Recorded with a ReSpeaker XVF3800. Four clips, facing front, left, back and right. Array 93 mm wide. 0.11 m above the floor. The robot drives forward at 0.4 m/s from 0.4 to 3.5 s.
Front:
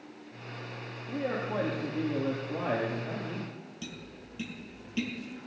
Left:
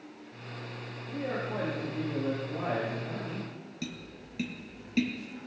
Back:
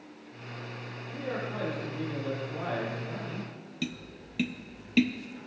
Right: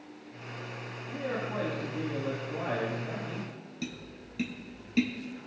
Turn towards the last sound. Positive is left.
turn(degrees=180)